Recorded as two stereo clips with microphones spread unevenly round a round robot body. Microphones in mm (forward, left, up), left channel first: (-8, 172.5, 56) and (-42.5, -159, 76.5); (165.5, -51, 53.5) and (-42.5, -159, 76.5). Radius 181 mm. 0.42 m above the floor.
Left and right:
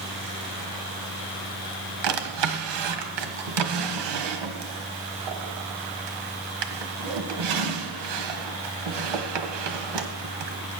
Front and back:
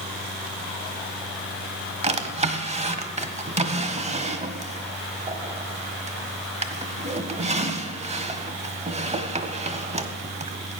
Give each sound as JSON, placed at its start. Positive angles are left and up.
{"t": 2.0, "sound": "a drawer", "azimuth_deg": -90, "distance_m": 1.5}